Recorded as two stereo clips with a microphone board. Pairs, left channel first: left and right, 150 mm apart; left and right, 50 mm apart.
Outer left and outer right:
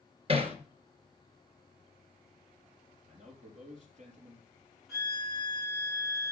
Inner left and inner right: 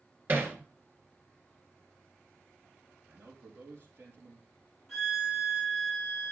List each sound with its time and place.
0.3 s hammering: 40° right (ahead or behind), 1.7 m
3.0 s a man speaking: 50° right (ahead or behind), 3 m
4.9 s a violin: centre (ahead or behind), 5.5 m